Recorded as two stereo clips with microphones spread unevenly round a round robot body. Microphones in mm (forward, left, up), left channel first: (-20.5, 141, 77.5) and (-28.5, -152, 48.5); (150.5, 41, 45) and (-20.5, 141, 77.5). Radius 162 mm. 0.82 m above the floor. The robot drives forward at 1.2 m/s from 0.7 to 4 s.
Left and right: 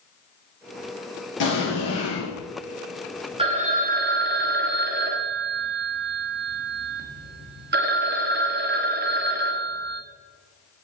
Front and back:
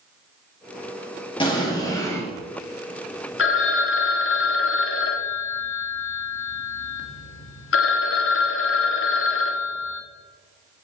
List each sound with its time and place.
1.4 s an explosion: 35° left, 4 m; by 2.3 s 50° left, 3 m
3.4 s a phone ringing: 20° right, 1.7 m; by 10.0 s 35° right, 1.0 m